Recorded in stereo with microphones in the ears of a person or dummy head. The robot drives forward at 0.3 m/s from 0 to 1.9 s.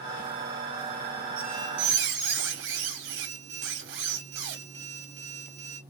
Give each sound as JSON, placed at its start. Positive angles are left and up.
{"t": 1.4, "sound": "a squeak", "side_deg": -65, "distance_m": 1.8}